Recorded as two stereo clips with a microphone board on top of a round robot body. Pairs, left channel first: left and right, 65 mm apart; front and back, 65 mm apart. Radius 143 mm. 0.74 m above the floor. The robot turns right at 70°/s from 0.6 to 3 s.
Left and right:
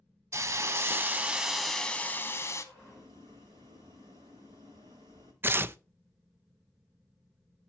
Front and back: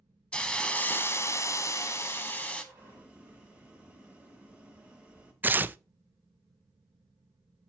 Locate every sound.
0.3 s a hiss: 65° right, 1.4 m; by 2.6 s 75° left, 1.4 m
2.7 s boiling: 130° right, 0.6 m; by 5.3 s 110° right, 0.6 m
5.4 s tearing paper: 130° right, 0.5 m